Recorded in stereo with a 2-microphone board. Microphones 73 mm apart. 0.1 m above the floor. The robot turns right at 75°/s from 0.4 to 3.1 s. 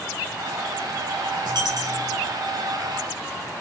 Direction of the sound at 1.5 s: 80° right.